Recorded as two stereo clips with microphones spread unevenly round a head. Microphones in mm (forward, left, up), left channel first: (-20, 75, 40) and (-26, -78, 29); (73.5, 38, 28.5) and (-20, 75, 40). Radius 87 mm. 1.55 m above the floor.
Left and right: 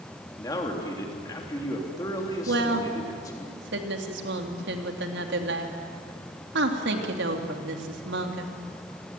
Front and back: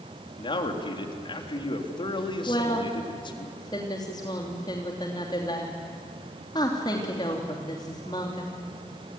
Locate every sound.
0.4 s a man speaking: 15° left, 3.5 m
2.5 s a woman speaking: 85° right, 3 m